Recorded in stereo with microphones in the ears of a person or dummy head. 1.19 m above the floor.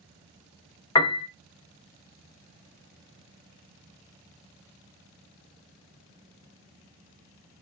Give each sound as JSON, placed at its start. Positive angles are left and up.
{"t": 0.9, "sound": "a piano", "side_deg": 15, "distance_m": 0.9}